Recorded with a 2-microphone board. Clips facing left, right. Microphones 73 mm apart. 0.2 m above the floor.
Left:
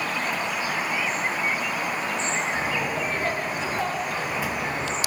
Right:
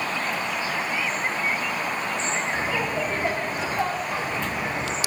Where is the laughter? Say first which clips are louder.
Right 1 dB; 15° right (ahead or behind), 1.1 m.